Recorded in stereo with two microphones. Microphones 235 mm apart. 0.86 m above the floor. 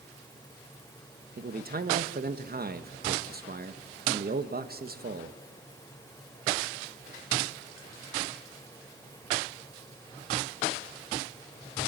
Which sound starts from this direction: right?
A man speaking, at 1.4 s.